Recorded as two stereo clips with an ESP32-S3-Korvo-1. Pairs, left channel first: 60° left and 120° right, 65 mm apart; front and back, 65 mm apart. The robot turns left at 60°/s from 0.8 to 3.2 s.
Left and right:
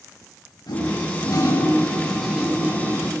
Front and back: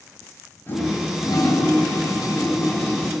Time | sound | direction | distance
0.7 | a toilet flushing | 55° left | 9.5 m